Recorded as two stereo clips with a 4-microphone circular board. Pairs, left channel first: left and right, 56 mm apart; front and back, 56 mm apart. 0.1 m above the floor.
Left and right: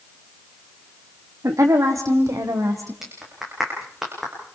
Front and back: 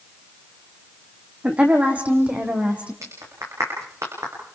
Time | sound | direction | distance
1.4 | a woman speaking | 115° right | 5 m
3.0 | a clap | 175° right | 8.5 m